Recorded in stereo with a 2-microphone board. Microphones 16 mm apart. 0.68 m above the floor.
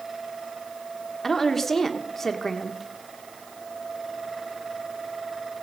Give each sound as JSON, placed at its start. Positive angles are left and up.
{"t": 1.2, "sound": "a woman speaking", "side_deg": 20, "distance_m": 1.5}